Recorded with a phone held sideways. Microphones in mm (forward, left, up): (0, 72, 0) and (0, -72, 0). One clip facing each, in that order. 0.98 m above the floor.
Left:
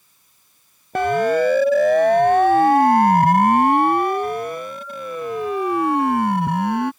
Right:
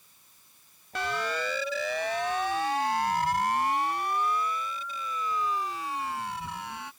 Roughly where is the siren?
Left.